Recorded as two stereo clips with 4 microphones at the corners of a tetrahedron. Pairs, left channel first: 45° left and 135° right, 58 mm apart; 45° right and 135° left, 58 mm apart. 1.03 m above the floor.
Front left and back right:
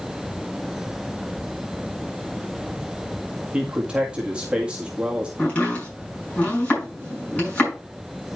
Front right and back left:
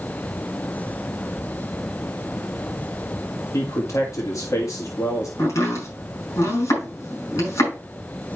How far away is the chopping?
About 5.5 m.